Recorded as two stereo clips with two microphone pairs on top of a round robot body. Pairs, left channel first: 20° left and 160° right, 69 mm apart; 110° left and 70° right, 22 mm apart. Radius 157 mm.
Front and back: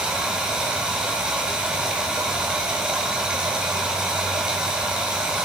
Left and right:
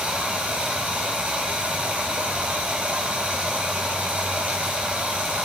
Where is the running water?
90° right, 1.8 m.